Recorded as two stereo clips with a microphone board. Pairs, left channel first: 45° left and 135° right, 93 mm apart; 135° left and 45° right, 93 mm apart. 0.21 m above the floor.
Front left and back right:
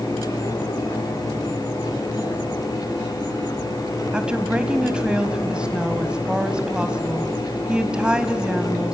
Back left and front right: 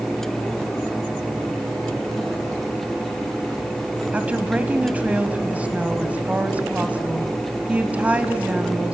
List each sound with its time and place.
4.1 s a woman speaking: 80° right, 1.1 m